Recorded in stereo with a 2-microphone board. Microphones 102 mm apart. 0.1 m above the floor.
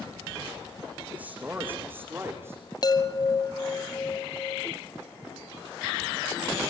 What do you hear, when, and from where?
1.1 s a man speaking: 15° right (ahead or behind), 6.5 m; by 2.6 s 25° right (ahead or behind), 7 m
2.8 s a chime: 40° left (ahead or behind), 1.4 m